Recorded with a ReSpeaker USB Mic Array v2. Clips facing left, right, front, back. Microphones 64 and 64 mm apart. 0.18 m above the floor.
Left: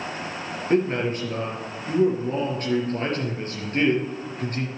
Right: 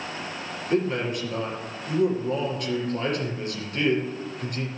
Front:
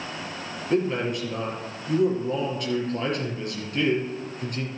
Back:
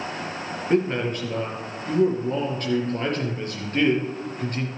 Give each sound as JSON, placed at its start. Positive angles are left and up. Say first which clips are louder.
{"t": 0.7, "sound": "a man speaking", "louder": "left 3 dB, back 2 dB", "azimuth_deg": 135, "distance_m": 4.0}